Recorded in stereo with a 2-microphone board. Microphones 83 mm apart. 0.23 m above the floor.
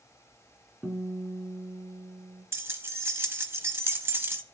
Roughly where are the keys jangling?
Right.